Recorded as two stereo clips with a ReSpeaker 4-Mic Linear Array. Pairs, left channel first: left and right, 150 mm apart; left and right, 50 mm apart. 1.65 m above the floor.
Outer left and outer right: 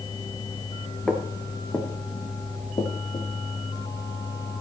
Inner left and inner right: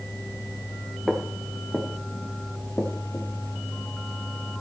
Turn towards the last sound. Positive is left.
turn(degrees=45)  # may be behind; listen again after turning